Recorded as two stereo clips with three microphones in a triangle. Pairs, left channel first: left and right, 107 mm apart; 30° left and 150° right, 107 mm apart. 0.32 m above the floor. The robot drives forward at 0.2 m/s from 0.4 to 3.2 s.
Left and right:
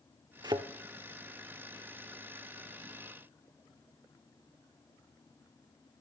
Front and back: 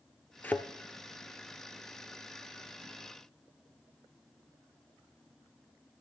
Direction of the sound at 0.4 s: 45° right.